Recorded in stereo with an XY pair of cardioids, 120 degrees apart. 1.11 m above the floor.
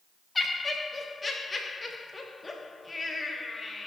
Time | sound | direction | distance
0.3 | laughter | 20° left | 2.5 m